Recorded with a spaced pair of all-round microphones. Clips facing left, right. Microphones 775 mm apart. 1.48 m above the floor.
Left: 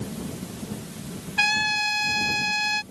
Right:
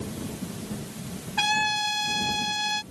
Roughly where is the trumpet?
Right.